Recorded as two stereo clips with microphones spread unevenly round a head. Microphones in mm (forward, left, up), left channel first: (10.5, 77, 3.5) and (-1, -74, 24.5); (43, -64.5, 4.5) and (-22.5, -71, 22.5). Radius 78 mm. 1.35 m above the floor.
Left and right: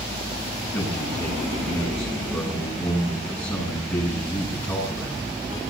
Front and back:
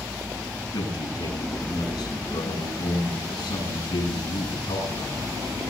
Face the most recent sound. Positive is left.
turn(degrees=15)